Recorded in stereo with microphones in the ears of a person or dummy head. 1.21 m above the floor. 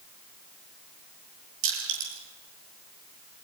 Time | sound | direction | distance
1.6 | crushing | 65° right (ahead or behind) | 8 m